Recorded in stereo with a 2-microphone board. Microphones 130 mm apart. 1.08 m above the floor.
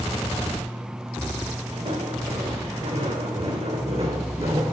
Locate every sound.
1.7 s footsteps: 65° right (ahead or behind), 4 m; by 4.7 s 50° right (ahead or behind), 2.5 m